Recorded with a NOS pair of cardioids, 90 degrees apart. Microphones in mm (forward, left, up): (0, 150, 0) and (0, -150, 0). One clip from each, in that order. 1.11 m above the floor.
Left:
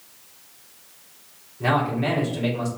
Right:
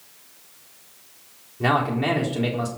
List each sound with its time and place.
1.6 s a man speaking: 40° right, 3.5 m